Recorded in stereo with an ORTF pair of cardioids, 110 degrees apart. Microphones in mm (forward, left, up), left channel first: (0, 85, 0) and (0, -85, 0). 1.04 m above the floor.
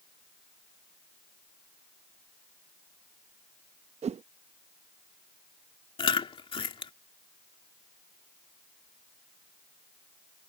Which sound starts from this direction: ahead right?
A whoosh, at 4.0 s.